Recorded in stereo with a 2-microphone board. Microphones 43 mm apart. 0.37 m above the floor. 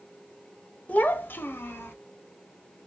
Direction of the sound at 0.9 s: 35° left (ahead or behind).